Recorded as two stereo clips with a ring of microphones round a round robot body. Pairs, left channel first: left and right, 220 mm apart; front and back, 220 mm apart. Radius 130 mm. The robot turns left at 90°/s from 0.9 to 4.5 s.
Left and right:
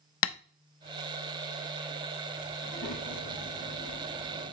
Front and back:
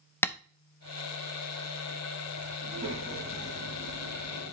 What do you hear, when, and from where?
0.2 s tapping: 80° left, 0.6 m
2.6 s a child speaking: 135° left, 5 m; by 4.5 s 35° right, 5 m